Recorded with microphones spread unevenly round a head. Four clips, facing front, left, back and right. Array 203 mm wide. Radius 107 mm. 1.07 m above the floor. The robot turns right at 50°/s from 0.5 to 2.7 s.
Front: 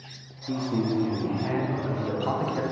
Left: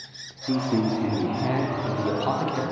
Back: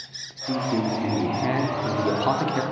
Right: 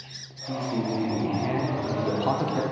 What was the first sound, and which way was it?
A man speaking, 105° left.